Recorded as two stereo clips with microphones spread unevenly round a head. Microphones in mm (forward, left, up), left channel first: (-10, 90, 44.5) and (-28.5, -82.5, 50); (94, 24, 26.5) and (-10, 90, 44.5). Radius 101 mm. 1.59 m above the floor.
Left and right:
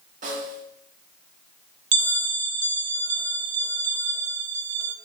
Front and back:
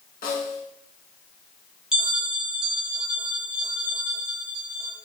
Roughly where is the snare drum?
Ahead right.